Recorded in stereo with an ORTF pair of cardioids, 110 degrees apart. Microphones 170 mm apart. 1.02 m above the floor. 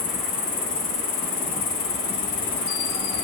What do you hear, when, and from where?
0.0 s an insect: 60° left, 1.2 m